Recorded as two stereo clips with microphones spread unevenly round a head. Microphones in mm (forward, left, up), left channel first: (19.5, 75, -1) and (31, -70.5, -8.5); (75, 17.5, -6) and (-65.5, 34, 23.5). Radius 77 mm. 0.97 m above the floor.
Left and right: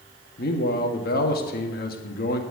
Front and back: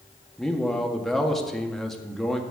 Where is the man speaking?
80° left, 1.6 m.